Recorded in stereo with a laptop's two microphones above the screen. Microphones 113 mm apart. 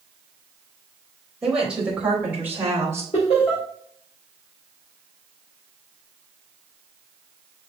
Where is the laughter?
65° left (ahead or behind), 2.5 m.